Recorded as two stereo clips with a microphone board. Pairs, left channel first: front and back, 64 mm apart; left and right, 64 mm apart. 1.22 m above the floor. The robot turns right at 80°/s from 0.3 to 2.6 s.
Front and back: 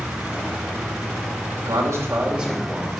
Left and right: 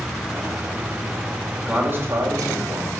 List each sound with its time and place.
1.7 s a man speaking: 165° right, 3 m; by 3.0 s 90° right, 3 m